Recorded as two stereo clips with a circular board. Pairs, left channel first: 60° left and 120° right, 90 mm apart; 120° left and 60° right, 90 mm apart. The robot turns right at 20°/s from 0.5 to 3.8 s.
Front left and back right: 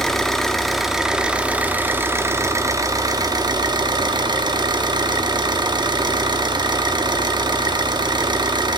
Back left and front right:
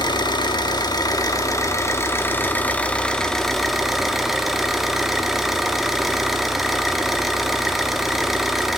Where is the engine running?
145° left, 0.8 m; by 8.8 s 150° right, 0.8 m.